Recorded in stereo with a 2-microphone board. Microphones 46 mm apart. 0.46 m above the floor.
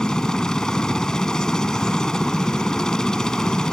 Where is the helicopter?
15° left (ahead or behind).